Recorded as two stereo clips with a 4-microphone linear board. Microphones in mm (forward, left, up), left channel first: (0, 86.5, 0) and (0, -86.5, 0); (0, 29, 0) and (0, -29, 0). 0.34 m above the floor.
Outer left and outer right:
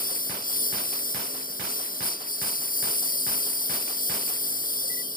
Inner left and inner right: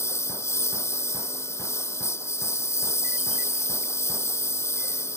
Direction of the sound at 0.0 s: 60° left (ahead or behind).